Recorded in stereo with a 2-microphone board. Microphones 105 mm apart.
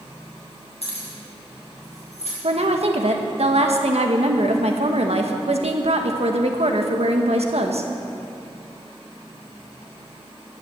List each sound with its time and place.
0.8 s keys jangling: 70° left (ahead or behind), 6.5 m; by 2.3 s 80° left, 8 m
2.4 s a woman speaking: 70° right (ahead or behind), 1.6 m